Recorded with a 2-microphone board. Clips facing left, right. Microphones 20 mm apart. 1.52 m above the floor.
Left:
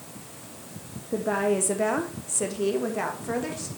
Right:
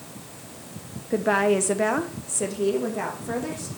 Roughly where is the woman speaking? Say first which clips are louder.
Right 4 dB; right.